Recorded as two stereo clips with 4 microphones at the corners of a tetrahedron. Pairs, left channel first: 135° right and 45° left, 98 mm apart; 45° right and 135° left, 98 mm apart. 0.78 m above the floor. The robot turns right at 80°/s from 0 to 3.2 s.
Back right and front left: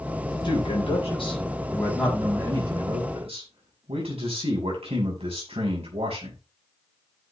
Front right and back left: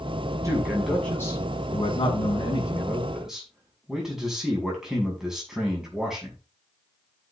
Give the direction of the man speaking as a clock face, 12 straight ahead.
6 o'clock.